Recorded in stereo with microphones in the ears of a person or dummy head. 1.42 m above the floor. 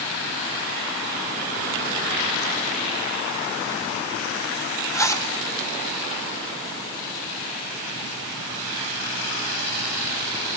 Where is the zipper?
20° left (ahead or behind), 3 m.